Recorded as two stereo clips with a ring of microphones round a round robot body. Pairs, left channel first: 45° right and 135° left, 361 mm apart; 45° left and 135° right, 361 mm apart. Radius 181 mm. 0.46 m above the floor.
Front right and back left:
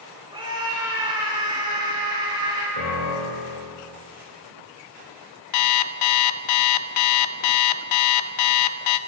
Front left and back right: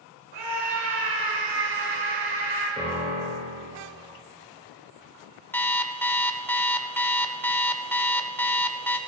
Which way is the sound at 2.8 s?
60° right.